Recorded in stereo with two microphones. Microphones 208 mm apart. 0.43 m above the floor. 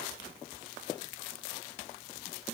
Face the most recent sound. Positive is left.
No sound to turn to.